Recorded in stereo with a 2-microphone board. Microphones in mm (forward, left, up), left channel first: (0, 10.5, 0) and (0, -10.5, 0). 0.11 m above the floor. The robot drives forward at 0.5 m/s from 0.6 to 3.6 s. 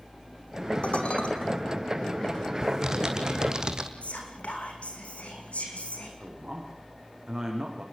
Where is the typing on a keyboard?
30° right (ahead or behind), 2.5 m; by 3.9 s 35° right (ahead or behind), 2.5 m.